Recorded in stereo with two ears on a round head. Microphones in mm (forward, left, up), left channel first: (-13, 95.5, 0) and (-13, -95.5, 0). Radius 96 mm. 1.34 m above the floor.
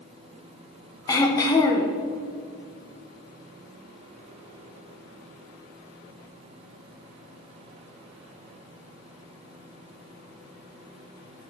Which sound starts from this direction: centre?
Throat clearing, at 1.1 s.